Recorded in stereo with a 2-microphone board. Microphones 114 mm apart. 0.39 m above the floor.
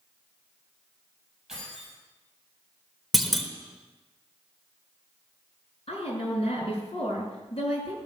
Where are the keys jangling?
5° right (ahead or behind), 8 m.